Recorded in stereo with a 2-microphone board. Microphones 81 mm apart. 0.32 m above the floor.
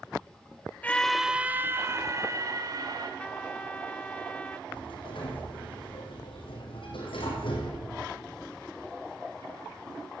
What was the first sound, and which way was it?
A scream, 20° left (ahead or behind).